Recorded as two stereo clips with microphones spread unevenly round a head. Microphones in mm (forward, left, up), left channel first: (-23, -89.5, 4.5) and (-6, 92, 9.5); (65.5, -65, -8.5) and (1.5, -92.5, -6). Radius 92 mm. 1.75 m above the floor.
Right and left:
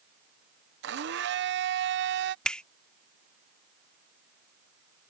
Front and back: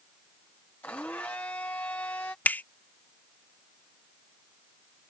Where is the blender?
100° left.